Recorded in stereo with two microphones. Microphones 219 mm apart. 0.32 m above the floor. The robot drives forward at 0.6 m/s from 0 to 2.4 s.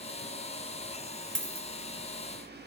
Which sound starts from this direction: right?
A dropped coin, at 1.4 s.